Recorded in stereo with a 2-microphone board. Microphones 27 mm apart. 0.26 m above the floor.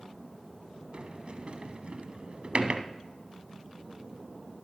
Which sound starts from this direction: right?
A sliding door, at 0.9 s.